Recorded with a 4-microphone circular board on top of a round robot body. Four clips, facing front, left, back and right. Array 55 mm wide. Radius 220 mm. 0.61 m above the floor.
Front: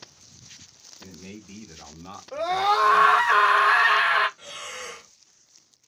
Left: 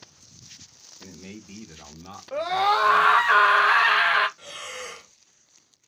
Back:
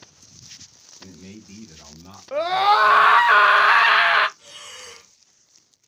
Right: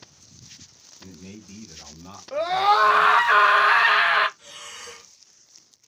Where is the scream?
175° right, 1.0 m.